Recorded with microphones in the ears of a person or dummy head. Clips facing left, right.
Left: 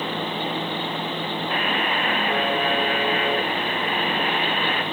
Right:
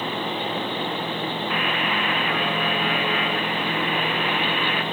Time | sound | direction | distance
1.5 | a buzzer | 35° left (ahead or behind) | 0.6 m